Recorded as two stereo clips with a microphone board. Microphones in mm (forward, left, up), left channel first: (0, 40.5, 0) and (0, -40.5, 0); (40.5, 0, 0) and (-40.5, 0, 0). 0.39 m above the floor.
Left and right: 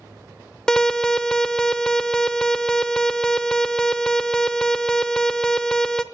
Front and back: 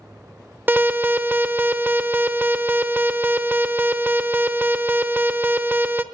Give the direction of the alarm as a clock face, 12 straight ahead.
7 o'clock.